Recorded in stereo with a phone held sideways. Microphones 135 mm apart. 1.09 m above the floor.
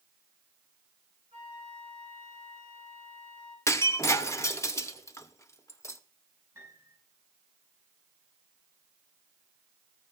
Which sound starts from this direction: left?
Breaking glass, at 3.7 s.